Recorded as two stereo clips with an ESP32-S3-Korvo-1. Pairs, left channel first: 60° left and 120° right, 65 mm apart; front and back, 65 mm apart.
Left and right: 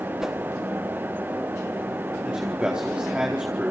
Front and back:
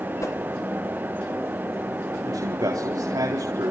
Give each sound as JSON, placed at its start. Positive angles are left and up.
{"t": 0.2, "sound": "a whoosh", "azimuth_deg": -40, "distance_m": 3.5}
{"t": 2.2, "sound": "a man speaking", "azimuth_deg": 165, "distance_m": 4.5}